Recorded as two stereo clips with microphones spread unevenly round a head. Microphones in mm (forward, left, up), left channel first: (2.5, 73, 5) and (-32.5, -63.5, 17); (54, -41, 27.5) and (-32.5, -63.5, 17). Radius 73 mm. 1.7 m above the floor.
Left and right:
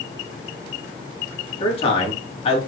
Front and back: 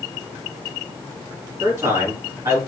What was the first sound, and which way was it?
A man speaking, 125° left.